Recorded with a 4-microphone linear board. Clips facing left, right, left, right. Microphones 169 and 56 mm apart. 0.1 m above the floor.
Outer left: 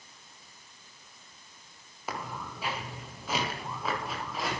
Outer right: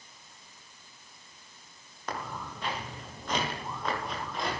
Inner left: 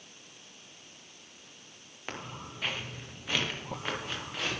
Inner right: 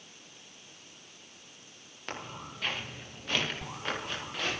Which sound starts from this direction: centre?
Footsteps, at 2.1 s.